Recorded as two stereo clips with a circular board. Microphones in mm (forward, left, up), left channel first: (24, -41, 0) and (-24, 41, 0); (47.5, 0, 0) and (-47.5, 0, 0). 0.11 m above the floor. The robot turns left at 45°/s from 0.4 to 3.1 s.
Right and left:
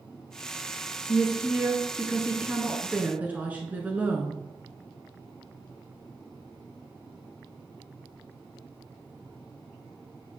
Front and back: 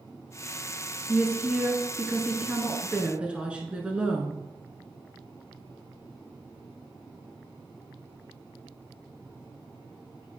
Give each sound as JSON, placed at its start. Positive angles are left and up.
{"t": 1.1, "sound": "a woman speaking", "azimuth_deg": -140, "distance_m": 1.1}